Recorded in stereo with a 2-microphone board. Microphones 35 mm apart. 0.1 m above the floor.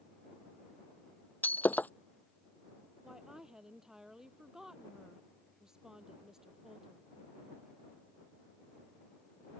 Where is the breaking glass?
55° left (ahead or behind).